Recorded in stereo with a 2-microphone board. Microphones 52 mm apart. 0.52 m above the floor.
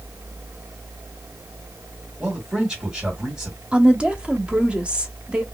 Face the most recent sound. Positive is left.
turn(degrees=-20)  # may be behind; listen again after turning